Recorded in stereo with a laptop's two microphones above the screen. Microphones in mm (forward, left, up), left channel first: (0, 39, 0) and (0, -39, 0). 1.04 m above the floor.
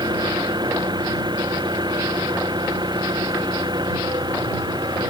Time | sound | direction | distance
0.0 | an engine running | 65° right (ahead or behind) | ?